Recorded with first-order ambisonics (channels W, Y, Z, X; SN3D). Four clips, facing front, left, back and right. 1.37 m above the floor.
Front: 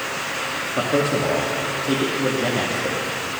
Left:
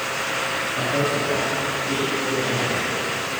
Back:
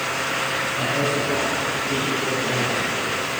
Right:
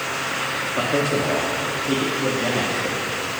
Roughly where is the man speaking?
Ahead right.